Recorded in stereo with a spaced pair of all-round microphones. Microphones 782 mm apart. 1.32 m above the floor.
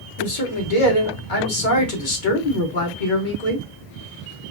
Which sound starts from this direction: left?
A man speaking, at 0.2 s.